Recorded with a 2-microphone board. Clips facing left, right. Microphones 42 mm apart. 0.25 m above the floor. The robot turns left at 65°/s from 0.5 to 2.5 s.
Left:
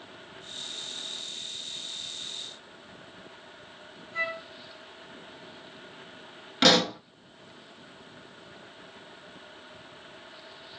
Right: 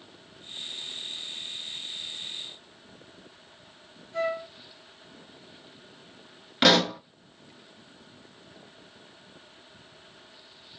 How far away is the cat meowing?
No cat meowing in this recording.